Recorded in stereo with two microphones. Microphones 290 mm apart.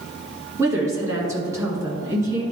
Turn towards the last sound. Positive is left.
turn(degrees=-10)  # may be behind; listen again after turning